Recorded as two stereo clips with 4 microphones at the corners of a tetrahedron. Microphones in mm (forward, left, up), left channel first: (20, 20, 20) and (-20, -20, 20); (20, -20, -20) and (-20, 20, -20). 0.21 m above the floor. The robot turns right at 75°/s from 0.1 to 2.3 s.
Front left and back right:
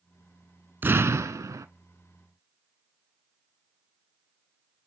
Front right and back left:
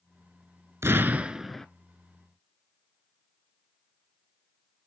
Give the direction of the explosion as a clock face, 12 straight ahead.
6 o'clock.